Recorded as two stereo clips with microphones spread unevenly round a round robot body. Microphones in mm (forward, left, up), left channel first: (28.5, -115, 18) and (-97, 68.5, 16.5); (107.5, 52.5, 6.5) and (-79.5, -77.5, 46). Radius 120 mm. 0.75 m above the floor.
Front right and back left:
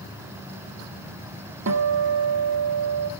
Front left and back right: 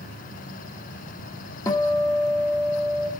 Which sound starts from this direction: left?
A guitar, at 1.7 s.